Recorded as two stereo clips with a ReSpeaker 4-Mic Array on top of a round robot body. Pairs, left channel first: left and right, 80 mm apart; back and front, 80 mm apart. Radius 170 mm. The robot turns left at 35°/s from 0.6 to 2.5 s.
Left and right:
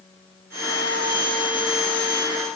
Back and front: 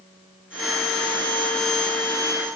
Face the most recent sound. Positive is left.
No sound to turn to.